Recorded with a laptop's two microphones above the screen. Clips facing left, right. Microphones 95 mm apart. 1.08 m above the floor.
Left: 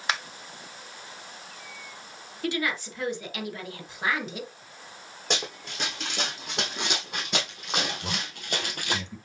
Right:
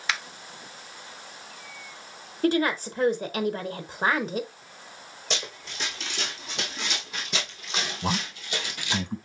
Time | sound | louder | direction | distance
0.1 | a finger snap | left 1 dB | 35° left (ahead or behind) | 0.6 m
2.4 | a woman speaking | right 6 dB | 40° right (ahead or behind) | 0.7 m
5.3 | running footsteps | left 3 dB | 55° left (ahead or behind) | 3.5 m
8.0 | a man speaking | right 6 dB | 45° right (ahead or behind) | 0.9 m